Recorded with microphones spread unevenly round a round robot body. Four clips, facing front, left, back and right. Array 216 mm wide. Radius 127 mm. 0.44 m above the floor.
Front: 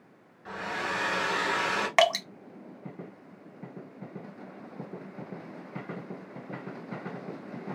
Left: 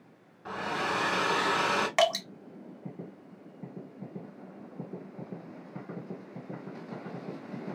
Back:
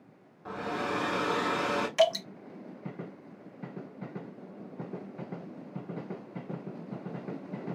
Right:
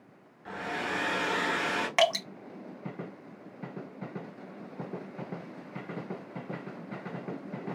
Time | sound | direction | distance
0.5 | a hair dryer | 155° left | 0.6 m
2.0 | dripping | 5° right | 1.3 m